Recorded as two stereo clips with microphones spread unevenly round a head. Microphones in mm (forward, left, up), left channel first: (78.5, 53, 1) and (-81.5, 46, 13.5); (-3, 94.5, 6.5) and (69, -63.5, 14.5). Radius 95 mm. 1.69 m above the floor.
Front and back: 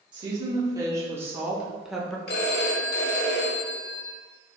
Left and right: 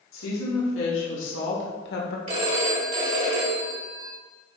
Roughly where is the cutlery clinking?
No cutlery clinking in this recording.